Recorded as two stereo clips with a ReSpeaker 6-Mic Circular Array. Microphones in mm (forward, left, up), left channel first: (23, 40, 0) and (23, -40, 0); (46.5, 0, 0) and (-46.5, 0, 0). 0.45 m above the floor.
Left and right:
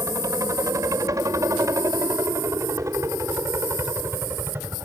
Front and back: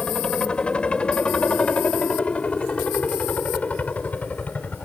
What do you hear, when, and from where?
0.0 s a helicopter: 75° right; by 4.9 s 60° right